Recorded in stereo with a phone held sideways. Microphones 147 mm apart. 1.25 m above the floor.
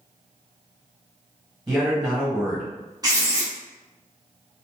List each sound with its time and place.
1.7 s a man speaking: 15° right (ahead or behind), 1.5 m
3.0 s writing: 25° right (ahead or behind), 1.1 m